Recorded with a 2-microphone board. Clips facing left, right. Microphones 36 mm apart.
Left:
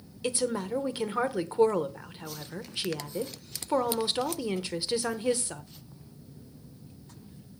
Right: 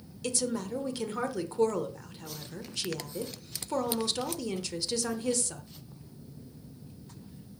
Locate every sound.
0.2 s a woman speaking: 25° left (ahead or behind), 1.0 m